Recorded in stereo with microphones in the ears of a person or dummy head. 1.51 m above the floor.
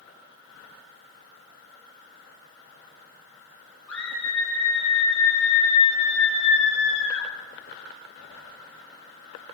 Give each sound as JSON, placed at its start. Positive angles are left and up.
{"t": 3.9, "sound": "a scream", "side_deg": 5, "distance_m": 5.5}